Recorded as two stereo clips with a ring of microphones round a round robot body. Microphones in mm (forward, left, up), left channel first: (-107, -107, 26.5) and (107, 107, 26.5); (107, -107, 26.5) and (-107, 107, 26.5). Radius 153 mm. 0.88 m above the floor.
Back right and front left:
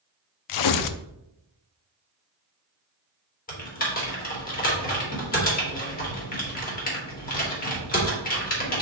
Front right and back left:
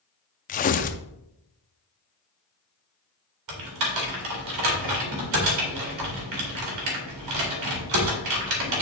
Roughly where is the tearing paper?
Right.